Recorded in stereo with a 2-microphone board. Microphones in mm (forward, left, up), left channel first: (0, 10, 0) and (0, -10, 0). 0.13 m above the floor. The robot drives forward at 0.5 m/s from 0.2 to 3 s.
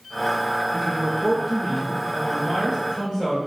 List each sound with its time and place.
0.7 s a man speaking: 10° left (ahead or behind), 1.7 m; by 3.4 s 5° left (ahead or behind), 2.5 m